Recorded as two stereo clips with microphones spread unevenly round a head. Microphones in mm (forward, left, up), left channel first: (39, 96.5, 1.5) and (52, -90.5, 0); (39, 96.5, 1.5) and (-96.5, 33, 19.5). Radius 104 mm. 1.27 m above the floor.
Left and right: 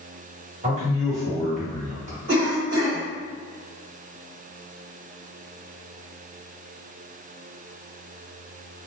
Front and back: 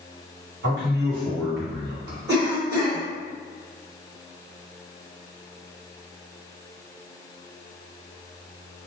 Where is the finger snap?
No finger snap in this recording.